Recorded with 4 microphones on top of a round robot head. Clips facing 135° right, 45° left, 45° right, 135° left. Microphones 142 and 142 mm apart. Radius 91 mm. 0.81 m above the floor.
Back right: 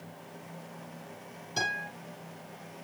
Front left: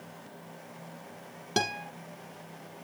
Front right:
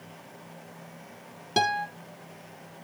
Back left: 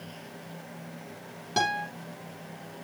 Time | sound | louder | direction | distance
1.6 | a guitar | front left 5 dB, front right 2 dB | 25° left | 4 m